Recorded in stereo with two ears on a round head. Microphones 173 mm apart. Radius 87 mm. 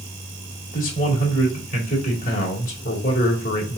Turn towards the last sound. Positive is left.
turn(degrees=40)  # may be behind; listen again after turning